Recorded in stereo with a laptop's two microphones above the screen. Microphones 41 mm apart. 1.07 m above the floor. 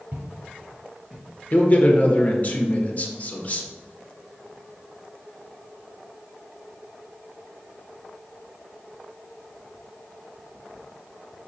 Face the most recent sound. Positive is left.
turn(degrees=35)  # may be behind; listen again after turning